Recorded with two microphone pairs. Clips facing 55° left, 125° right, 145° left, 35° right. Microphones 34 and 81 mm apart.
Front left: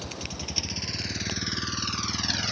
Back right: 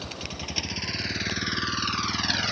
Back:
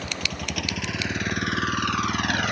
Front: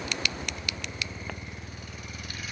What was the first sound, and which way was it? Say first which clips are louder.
A vehicle: back right 1 dB, back 2 dB; 165° left.